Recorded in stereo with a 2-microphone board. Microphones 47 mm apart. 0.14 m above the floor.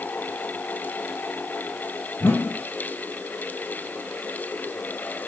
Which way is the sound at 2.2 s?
50° left (ahead or behind).